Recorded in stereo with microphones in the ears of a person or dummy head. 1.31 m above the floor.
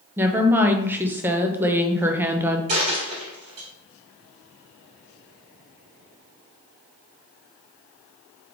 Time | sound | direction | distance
0.2 | a woman speaking | 10° right (ahead or behind) | 0.6 m
2.7 | a dropped coin | 35° right (ahead or behind) | 2 m